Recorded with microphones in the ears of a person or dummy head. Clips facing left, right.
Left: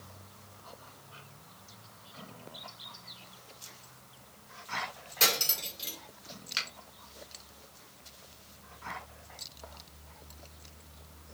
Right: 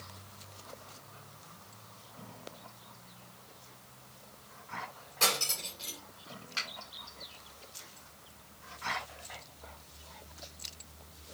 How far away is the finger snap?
About 1.7 m.